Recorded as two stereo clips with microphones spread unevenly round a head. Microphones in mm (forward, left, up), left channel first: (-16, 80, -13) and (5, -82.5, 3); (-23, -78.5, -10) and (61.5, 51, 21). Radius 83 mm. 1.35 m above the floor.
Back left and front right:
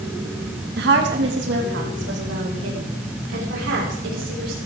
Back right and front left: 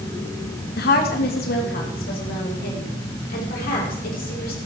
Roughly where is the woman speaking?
Right.